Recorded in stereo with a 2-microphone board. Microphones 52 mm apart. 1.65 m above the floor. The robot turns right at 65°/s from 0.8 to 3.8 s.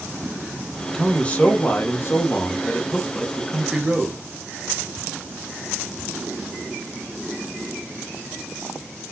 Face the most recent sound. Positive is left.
turn(degrees=-165)